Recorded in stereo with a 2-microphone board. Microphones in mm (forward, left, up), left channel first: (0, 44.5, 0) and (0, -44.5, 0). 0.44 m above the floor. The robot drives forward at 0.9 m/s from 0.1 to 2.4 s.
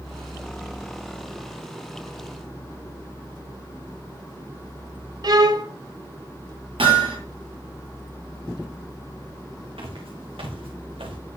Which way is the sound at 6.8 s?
80° right.